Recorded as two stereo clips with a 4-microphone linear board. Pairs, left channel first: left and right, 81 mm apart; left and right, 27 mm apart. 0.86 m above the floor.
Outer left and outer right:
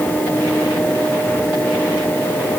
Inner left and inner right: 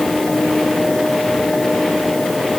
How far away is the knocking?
I don't hear knocking.